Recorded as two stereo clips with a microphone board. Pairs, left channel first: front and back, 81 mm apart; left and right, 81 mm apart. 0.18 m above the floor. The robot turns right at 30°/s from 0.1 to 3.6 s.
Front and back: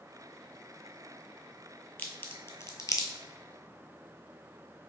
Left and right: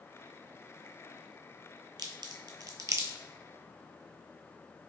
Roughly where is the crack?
Right.